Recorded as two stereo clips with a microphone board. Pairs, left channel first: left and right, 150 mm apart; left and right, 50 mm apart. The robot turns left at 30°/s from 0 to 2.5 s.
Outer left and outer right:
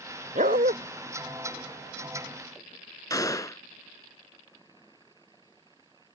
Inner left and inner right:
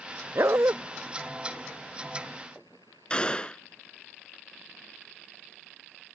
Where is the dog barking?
65° right (ahead or behind); by 0.8 s 75° right (ahead or behind).